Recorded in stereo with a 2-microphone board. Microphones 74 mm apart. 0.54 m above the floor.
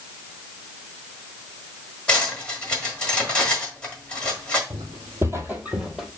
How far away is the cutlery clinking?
About 1.4 m.